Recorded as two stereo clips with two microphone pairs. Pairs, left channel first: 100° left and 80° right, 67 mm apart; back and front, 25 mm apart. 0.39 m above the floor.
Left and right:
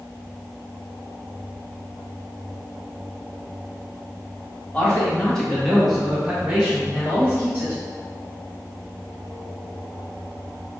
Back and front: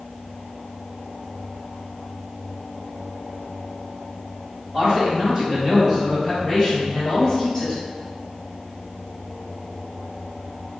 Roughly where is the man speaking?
Ahead left.